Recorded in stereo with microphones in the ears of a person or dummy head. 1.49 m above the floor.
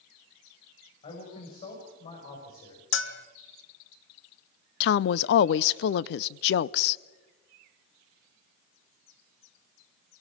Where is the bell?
65° left (ahead or behind), 1.5 m.